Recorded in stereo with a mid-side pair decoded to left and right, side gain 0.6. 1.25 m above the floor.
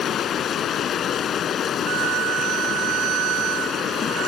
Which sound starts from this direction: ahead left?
Running water, at 0.0 s.